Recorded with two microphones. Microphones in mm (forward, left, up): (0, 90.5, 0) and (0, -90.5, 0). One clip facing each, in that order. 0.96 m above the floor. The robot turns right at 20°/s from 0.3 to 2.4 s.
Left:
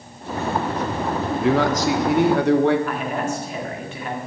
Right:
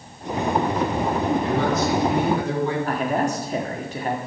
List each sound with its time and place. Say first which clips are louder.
1.4 s a man speaking: left 3 dB; 80° left, 1.6 m; by 2.8 s 60° left (ahead or behind), 1.6 m
2.9 s a man speaking: right 2 dB; 35° right (ahead or behind), 2 m